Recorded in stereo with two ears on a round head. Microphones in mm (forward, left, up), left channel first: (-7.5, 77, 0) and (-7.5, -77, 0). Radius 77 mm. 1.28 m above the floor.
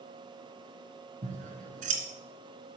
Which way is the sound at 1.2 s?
50° right (ahead or behind).